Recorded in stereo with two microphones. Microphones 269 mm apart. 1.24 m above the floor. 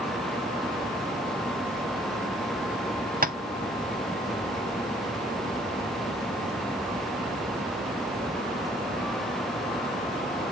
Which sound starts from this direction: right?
Tapping, at 3.2 s.